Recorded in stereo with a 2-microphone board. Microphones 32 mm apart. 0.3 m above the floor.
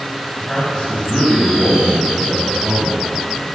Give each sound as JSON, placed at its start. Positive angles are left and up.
{"t": 0.3, "sound": "a man speaking", "side_deg": 15, "distance_m": 2.5}